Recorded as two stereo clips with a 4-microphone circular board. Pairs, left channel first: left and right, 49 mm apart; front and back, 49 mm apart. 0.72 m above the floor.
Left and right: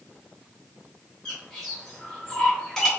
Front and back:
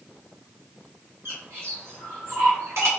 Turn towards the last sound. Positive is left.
turn(degrees=165)